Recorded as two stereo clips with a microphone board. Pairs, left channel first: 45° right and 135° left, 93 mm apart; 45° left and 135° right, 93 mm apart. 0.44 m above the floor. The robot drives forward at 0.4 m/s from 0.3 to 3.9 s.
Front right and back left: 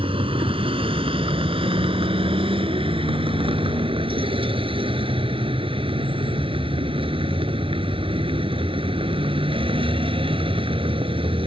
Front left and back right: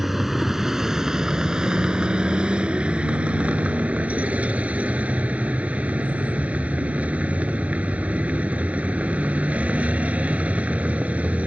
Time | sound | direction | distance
0.0 | a vehicle | 135° left | ?